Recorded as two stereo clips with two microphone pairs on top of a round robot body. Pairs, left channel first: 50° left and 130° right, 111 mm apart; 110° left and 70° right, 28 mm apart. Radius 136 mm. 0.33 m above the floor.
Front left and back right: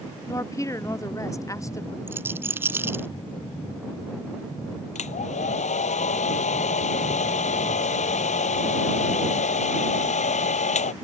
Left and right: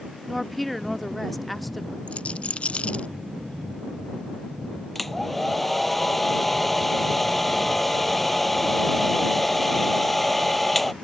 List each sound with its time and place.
0.3 s a woman speaking: 40° left
2.1 s a rattle: 160° left
5.0 s a hair dryer: 30° left